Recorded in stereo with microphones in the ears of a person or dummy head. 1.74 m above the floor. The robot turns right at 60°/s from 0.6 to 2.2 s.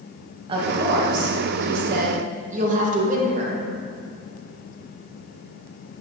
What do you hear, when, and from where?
0.5 s a woman speaking: 145° right, 1.8 m; by 3.7 s 50° right, 1.8 m